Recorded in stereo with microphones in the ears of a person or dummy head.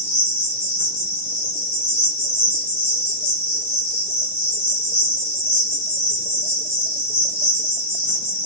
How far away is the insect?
About 1.2 m.